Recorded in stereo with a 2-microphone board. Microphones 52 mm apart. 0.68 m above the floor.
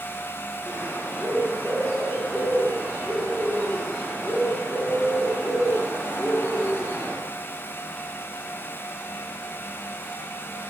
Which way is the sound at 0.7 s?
55° left (ahead or behind).